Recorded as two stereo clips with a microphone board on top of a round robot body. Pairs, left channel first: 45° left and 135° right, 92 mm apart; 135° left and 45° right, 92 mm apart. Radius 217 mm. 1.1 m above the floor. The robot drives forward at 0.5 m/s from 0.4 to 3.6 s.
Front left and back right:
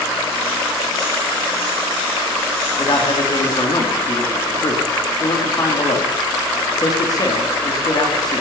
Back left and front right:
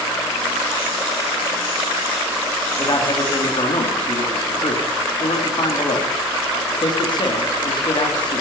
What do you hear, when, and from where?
2.8 s a man speaking: 85° left, 3 m; by 8.4 s 95° left, 3 m